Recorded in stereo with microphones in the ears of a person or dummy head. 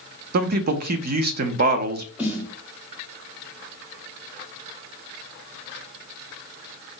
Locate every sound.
0.3 s a man speaking: 55° right (ahead or behind), 0.5 m
2.2 s a snare drum: 5° right (ahead or behind), 0.8 m